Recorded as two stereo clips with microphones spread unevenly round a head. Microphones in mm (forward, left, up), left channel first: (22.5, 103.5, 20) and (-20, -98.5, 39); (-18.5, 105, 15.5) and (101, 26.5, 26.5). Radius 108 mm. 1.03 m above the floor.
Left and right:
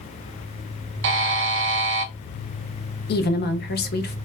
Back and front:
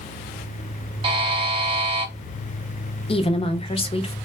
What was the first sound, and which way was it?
A buzzer, 90° right.